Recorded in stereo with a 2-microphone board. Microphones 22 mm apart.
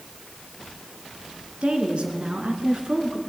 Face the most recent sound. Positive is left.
turn(degrees=-40)  # may be behind; listen again after turning